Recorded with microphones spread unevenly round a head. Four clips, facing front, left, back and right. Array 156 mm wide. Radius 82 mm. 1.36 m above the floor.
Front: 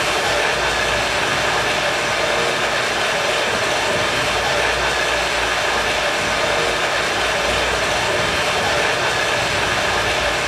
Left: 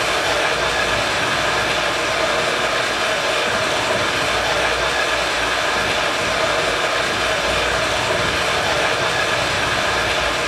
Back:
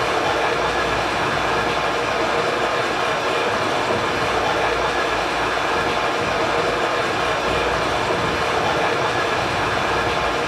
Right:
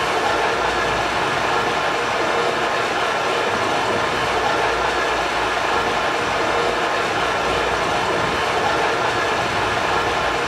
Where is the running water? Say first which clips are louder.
Right 1 dB, even; 155° right, 4.5 m.